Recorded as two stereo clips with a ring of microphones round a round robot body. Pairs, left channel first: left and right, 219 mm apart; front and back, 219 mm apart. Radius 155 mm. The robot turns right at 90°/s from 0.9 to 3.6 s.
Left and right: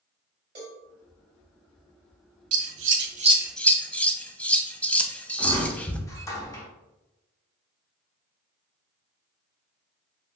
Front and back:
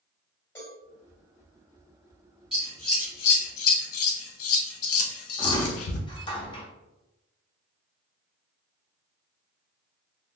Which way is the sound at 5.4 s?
35° left.